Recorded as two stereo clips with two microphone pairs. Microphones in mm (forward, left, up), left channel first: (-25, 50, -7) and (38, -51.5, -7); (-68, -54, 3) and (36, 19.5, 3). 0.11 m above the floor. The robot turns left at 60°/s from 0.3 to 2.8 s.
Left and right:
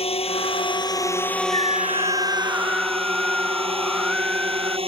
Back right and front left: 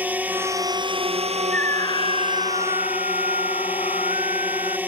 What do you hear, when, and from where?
0.0 s a drone: 110° left; by 4.9 s 40° right
1.5 s a scream: 70° right; by 4.8 s 145° right